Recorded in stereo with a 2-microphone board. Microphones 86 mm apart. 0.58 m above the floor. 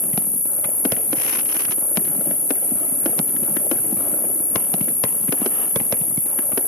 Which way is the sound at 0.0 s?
35° left (ahead or behind).